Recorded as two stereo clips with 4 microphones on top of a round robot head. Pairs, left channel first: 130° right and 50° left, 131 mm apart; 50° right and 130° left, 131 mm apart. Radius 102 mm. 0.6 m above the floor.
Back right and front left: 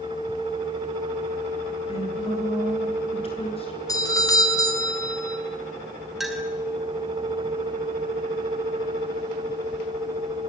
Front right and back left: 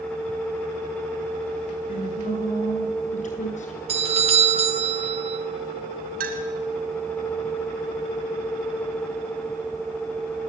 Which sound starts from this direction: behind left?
A clink, at 6.2 s.